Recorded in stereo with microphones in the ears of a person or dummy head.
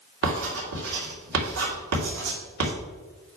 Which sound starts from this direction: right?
Writing, at 0.2 s.